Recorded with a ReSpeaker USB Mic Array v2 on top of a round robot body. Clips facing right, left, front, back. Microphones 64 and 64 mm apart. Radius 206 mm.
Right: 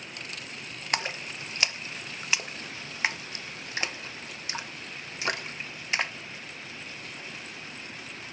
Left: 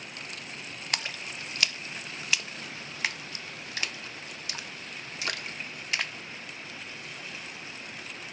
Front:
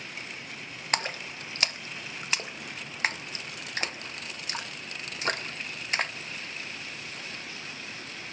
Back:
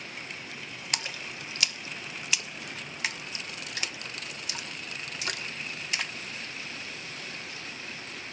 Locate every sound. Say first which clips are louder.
0.9 s a splash: right 4 dB, front 6 dB; 35° right, 0.9 m